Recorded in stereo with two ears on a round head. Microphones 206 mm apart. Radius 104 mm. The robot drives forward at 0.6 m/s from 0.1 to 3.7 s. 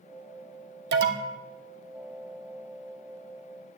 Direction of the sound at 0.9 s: 45° right (ahead or behind).